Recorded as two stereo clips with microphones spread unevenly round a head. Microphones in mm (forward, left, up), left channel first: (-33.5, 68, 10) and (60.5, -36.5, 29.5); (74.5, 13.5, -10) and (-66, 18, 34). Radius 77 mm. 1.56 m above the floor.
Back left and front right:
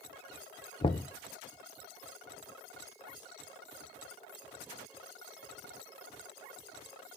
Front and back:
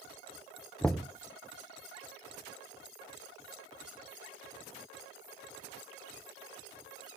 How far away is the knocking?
About 0.6 m.